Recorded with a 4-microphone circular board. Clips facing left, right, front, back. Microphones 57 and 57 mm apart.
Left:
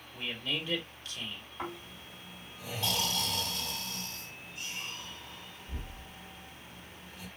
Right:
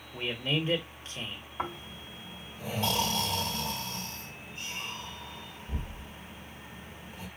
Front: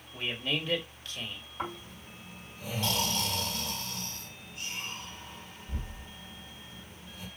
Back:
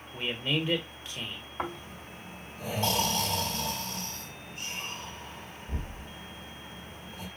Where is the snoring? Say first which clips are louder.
Right 4 dB, back 2 dB; 135° right, 2.0 m.